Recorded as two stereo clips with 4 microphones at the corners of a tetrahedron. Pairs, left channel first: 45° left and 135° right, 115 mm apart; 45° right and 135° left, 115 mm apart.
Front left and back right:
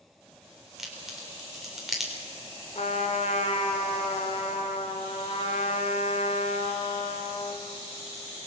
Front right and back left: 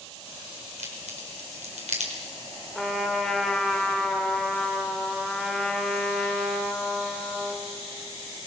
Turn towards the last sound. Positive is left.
turn(degrees=45)